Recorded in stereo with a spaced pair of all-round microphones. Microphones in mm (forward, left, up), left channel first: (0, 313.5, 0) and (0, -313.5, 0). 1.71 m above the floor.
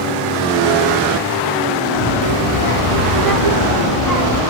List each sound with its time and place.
2.0 s a child speaking: 40° right (ahead or behind), 3 m; by 4.4 s 70° right (ahead or behind), 3 m